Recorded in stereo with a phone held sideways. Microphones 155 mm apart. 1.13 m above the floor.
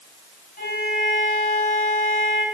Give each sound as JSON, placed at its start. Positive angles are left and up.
{"t": 0.6, "sound": "a violin", "side_deg": 70, "distance_m": 5.0}